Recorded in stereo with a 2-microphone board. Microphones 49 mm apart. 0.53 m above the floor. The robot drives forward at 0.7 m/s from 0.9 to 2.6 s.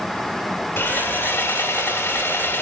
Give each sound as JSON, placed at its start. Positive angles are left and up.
{"t": 0.8, "sound": "sawing", "side_deg": 50, "distance_m": 1.6}